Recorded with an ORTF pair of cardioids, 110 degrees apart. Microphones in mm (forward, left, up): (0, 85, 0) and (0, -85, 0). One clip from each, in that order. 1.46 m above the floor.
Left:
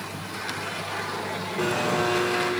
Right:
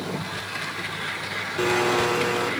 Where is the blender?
25° right, 1.3 m.